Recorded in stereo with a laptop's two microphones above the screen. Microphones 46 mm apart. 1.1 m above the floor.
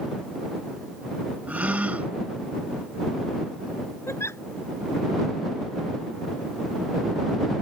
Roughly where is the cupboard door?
No cupboard door in this recording.